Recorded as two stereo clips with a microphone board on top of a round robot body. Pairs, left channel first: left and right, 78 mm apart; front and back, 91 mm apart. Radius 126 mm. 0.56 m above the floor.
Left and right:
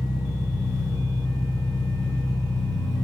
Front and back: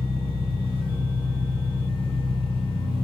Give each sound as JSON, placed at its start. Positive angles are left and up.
{"t": 0.0, "sound": "an engine running", "azimuth_deg": 160, "distance_m": 2.0}